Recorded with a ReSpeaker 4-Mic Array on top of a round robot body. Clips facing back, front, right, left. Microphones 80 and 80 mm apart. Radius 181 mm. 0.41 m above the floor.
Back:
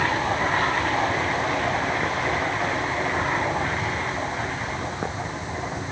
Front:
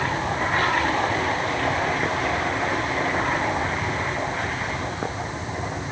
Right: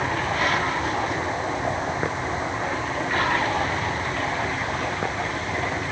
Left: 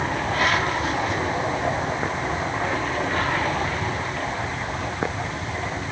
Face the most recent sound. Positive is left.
No sound to turn to.